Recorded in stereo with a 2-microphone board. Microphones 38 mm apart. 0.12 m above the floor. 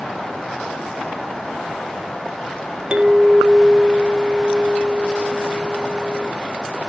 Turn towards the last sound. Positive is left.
turn(degrees=-25)  # may be behind; listen again after turning